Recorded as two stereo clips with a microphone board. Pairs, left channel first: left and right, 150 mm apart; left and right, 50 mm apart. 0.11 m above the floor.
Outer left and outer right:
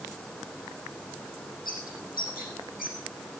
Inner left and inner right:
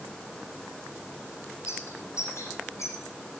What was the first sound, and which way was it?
A bird, 75° left (ahead or behind).